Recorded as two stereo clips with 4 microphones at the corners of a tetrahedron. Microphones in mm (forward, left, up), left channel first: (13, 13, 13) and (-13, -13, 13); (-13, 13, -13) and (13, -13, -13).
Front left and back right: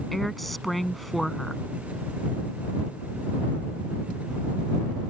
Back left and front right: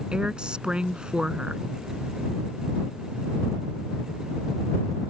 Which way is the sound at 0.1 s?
35° right.